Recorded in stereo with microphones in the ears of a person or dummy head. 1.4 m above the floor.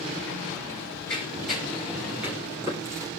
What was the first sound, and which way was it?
Running footsteps, 10° left (ahead or behind).